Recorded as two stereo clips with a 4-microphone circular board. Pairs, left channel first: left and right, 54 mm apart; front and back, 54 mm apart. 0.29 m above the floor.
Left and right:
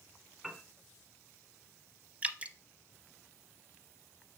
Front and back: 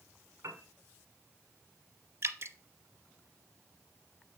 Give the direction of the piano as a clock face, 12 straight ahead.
6 o'clock.